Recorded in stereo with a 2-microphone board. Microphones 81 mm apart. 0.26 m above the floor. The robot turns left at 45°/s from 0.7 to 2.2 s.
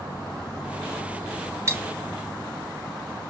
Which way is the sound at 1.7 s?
30° right (ahead or behind).